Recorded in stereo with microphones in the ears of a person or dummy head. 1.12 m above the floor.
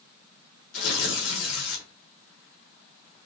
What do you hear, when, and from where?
0.7 s tearing paper: 80° left, 1.5 m